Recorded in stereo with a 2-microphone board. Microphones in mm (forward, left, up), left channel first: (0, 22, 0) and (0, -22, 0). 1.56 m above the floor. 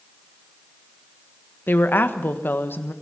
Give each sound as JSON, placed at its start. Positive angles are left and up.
{"t": 1.7, "sound": "a woman speaking", "side_deg": 50, "distance_m": 1.4}